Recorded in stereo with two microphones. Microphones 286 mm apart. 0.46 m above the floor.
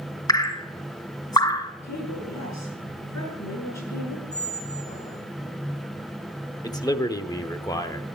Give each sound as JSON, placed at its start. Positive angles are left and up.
{"t": 0.3, "sound": "dripping", "side_deg": 15, "distance_m": 1.2}
{"t": 1.8, "sound": "a woman speaking", "side_deg": 65, "distance_m": 6.5}
{"t": 4.3, "sound": "a squeak", "side_deg": 25, "distance_m": 1.8}
{"t": 6.6, "sound": "a man speaking", "side_deg": 15, "distance_m": 1.0}